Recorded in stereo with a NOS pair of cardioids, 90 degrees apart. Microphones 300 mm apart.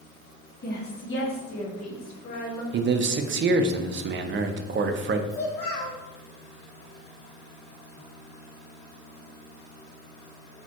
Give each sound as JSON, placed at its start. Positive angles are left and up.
{"t": 0.6, "sound": "a woman speaking", "azimuth_deg": 30, "distance_m": 1.5}
{"t": 2.7, "sound": "a man speaking", "azimuth_deg": -40, "distance_m": 0.6}
{"t": 5.3, "sound": "a child speaking", "azimuth_deg": 55, "distance_m": 1.7}